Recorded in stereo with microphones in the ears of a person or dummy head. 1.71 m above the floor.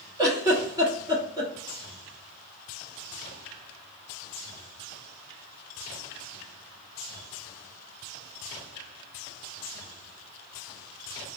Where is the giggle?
20° right (ahead or behind), 1.0 m.